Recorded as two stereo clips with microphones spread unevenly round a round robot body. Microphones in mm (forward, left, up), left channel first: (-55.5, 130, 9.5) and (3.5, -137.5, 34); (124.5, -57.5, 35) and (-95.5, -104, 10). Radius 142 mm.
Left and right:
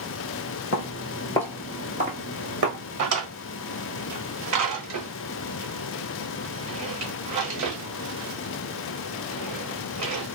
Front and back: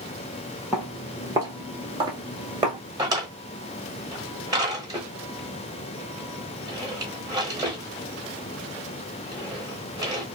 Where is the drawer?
95° right, 1.3 m.